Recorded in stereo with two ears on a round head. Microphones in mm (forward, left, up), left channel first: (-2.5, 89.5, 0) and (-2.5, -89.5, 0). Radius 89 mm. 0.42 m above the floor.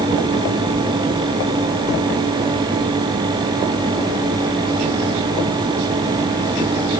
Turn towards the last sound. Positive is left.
No sound to turn to.